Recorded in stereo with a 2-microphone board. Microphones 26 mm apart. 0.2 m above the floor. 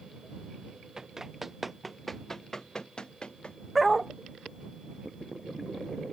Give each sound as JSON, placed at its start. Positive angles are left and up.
{"t": 1.0, "sound": "running footsteps", "side_deg": -25}
{"t": 3.8, "sound": "a dog barking", "side_deg": 0}